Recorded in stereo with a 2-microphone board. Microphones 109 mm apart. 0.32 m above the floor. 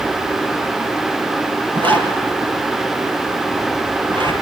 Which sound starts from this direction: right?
A zipper, at 1.8 s.